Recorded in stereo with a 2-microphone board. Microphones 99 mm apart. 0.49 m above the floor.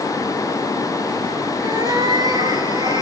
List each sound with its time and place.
1.6 s a cat meowing: 40° right (ahead or behind), 5.5 m; by 3.0 s 45° right (ahead or behind), 7.5 m